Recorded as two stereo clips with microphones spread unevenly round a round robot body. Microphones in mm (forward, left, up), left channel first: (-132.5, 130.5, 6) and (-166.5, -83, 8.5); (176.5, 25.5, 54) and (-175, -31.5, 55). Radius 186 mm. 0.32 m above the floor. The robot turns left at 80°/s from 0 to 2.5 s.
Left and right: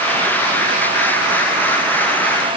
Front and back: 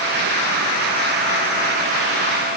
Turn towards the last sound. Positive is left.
No sound to turn to.